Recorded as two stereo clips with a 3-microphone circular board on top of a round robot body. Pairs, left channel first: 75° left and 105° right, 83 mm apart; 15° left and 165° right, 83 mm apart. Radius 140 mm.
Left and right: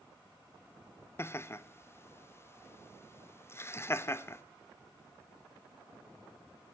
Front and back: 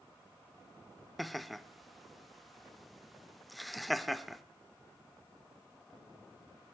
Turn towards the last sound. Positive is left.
turn(degrees=105)